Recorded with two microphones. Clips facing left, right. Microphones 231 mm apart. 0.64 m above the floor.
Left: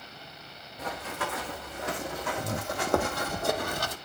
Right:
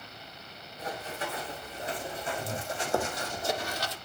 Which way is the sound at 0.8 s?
80° left.